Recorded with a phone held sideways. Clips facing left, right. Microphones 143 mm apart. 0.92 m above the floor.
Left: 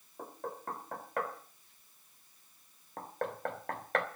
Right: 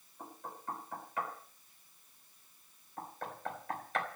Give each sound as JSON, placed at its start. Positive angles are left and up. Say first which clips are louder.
{"t": 0.2, "sound": "knocking", "louder": "left 5 dB", "side_deg": 65, "distance_m": 3.0}